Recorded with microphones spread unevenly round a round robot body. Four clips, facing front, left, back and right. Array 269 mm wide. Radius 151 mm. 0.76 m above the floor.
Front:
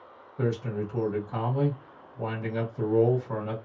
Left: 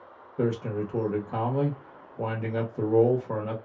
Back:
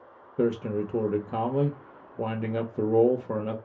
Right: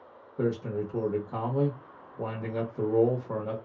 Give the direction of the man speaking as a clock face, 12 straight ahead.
6 o'clock.